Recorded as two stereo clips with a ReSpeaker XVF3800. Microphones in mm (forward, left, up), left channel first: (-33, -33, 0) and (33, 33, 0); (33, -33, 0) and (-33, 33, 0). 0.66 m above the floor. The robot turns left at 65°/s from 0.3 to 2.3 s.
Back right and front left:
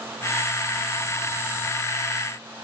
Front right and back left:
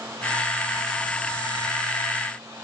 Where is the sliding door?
I don't hear a sliding door.